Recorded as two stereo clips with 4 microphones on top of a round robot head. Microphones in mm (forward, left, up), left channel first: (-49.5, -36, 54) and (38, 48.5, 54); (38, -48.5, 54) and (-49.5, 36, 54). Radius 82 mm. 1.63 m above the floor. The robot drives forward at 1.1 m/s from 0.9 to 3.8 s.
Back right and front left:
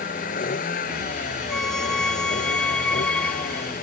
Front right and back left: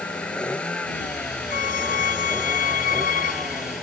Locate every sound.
0.0 s a vehicle: 125° right; by 3.8 s 130° right
1.5 s a violin: 50° right; by 3.7 s 55° right